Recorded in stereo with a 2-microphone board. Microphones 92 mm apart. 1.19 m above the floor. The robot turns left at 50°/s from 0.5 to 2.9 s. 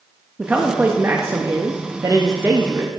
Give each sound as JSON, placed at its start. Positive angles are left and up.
{"t": 0.4, "sound": "a man speaking", "azimuth_deg": -30, "distance_m": 0.5}